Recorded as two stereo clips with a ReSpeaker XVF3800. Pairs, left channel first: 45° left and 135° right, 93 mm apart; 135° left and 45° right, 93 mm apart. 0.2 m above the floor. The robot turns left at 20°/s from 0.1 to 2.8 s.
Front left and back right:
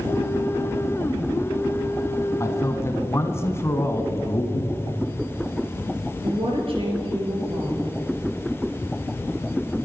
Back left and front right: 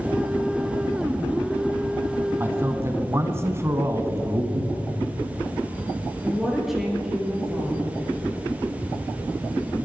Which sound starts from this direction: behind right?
A woman speaking, at 6.2 s.